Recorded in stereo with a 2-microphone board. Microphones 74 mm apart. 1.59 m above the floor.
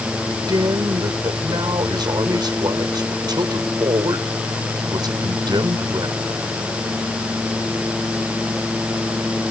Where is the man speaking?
70° right (ahead or behind).